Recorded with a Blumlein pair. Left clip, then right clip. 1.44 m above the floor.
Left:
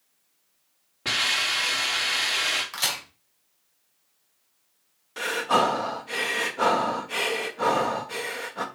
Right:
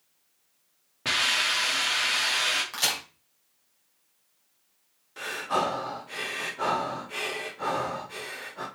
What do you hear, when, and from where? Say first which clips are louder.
1.1 s a hiss: even; 5° right, 2.5 m
2.7 s a crack: even; straight ahead, 4 m
5.2 s breathing: left 5 dB; 25° left, 1.1 m